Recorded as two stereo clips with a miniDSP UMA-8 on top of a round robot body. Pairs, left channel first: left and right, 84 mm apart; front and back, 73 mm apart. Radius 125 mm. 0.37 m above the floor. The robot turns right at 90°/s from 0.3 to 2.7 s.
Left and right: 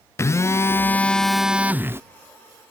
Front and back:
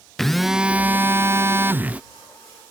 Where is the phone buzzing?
85° left; by 2.0 s 120° right.